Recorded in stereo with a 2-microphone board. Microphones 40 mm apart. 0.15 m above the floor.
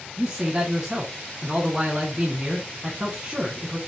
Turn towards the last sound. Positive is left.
turn(degrees=-20)  # may be behind; listen again after turning